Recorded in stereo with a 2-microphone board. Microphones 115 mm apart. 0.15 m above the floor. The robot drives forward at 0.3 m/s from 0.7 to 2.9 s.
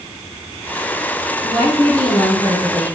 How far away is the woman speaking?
About 4.5 m.